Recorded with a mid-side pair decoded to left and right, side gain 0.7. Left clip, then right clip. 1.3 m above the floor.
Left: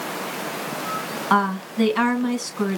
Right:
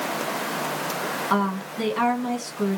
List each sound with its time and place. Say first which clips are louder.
1.3 s a woman speaking: left 7 dB; 30° left, 2.5 m